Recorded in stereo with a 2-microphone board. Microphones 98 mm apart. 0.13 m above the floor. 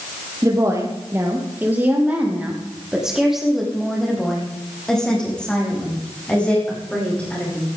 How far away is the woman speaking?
About 4 m.